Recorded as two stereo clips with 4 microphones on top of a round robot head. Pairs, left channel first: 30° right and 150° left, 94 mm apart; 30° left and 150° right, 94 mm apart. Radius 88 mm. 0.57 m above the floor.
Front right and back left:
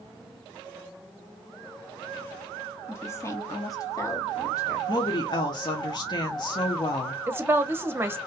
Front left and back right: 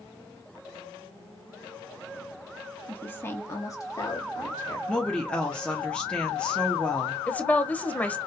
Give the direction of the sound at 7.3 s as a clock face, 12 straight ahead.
9 o'clock.